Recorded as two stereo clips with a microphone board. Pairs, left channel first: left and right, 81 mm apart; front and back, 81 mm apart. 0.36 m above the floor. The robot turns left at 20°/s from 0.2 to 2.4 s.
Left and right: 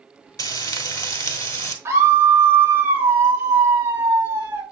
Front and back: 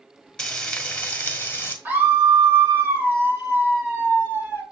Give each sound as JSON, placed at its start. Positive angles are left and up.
{"t": 0.4, "sound": "frying", "azimuth_deg": 75, "distance_m": 1.0}
{"t": 1.9, "sound": "a scream", "azimuth_deg": -125, "distance_m": 1.2}